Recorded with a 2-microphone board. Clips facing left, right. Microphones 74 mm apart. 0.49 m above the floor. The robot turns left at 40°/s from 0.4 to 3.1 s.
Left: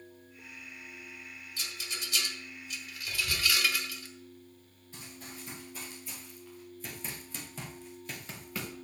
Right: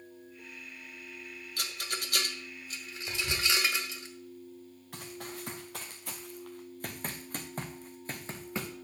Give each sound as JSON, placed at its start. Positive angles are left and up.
{"t": 1.6, "sound": "a rattle", "side_deg": -60, "distance_m": 1.1}
{"t": 3.1, "sound": "whispering", "side_deg": -35, "distance_m": 1.2}
{"t": 4.9, "sound": "running footsteps", "side_deg": -75, "distance_m": 2.5}